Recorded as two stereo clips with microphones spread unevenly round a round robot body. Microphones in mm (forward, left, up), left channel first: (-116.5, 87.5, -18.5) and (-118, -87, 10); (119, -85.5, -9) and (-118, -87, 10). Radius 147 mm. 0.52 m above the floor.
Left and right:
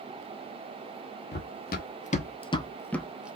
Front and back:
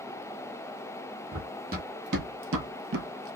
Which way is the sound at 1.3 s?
115° left.